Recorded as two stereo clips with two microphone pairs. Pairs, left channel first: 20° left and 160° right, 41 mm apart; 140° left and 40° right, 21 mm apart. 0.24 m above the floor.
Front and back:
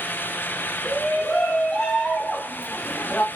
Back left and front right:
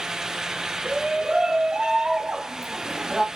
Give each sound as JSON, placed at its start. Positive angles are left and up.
{"t": 0.8, "sound": "a shout", "azimuth_deg": -60, "distance_m": 3.0}